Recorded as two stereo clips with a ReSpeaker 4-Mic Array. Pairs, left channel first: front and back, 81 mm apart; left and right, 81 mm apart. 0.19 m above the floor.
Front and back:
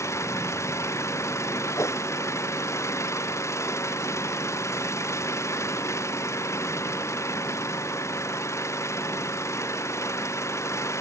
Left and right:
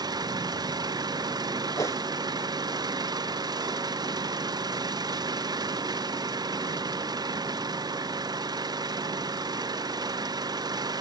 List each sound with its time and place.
0.0 s an engine running: 55° right
1.8 s a whoosh: 45° left